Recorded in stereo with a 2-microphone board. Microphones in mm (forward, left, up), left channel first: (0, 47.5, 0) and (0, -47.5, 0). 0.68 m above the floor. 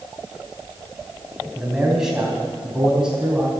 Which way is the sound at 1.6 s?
5° right (ahead or behind).